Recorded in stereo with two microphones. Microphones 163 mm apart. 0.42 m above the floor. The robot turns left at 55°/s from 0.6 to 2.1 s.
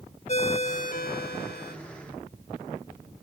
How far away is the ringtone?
About 1.2 m.